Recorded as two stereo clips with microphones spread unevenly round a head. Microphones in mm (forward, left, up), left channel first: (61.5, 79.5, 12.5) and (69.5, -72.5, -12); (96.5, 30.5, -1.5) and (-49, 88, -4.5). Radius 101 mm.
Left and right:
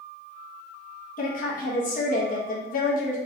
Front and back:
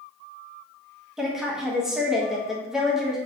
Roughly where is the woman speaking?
Left.